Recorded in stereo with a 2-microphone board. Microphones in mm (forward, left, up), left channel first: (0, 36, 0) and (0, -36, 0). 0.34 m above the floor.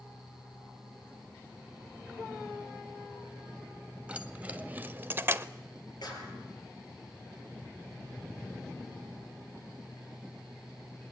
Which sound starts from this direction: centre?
Keys jangling, at 4.1 s.